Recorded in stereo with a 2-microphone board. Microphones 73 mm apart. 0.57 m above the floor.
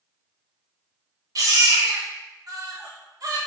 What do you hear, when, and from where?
1.4 s a baby crying: 55° right (ahead or behind), 0.9 m